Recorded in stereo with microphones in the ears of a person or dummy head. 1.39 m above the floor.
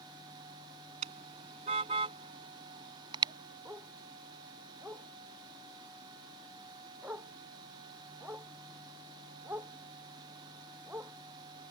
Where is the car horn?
40° right (ahead or behind); by 3.3 s 25° right (ahead or behind).